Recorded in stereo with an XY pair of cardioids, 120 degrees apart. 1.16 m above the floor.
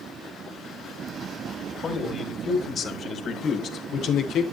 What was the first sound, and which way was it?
A man speaking, 45° left.